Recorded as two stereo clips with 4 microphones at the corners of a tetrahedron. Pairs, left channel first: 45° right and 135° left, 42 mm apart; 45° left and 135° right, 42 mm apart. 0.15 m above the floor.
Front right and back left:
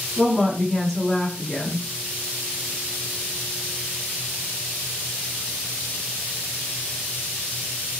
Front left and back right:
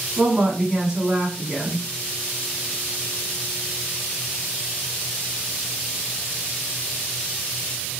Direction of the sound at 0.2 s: 95° right.